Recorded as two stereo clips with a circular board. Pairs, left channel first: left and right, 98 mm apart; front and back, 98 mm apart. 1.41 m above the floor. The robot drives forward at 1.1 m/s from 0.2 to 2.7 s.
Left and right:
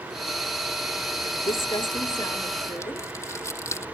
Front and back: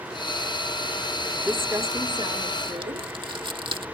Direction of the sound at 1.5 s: 105° left.